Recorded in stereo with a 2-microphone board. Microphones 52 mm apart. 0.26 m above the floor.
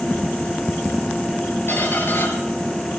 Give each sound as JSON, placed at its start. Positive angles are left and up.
{"t": 1.7, "sound": "a squeak", "side_deg": 45, "distance_m": 2.5}